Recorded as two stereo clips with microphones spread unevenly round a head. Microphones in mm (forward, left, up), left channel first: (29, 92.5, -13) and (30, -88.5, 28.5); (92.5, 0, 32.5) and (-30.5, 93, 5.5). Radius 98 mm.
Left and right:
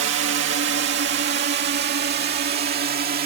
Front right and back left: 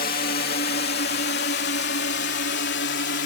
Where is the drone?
75° right; by 3.3 s 50° right.